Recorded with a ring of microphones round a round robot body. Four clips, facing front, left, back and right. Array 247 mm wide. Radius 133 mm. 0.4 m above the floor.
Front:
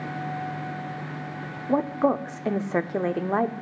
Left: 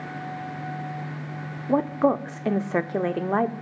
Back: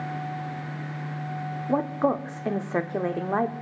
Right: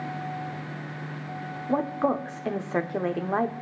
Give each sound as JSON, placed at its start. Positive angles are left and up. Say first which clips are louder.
{"t": 1.7, "sound": "a woman speaking", "louder": "left 4 dB, front 2 dB", "azimuth_deg": 65, "distance_m": 0.8}